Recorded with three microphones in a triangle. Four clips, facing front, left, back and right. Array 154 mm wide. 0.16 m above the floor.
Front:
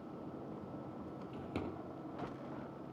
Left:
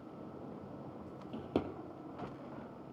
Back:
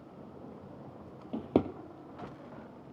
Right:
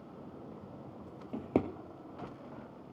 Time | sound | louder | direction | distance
1.3 | a drawer | right 5 dB, back 14 dB | 165° right | 1.3 m